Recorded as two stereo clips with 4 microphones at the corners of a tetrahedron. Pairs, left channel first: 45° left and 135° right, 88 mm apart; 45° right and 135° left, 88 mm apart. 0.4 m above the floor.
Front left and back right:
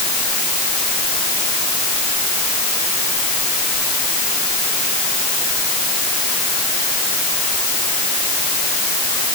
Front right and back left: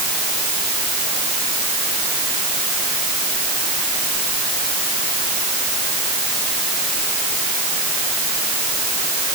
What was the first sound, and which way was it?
Only background noise.